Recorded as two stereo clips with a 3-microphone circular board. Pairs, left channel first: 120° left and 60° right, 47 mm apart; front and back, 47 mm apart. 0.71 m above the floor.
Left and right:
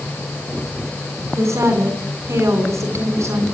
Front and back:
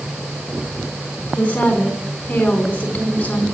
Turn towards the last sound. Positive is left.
turn(degrees=-60)